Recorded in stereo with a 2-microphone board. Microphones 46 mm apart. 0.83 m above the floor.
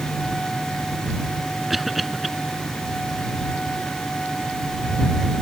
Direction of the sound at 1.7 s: Centre (ahead or behind).